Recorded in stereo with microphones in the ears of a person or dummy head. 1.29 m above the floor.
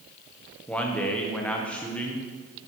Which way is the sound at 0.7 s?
15° left (ahead or behind).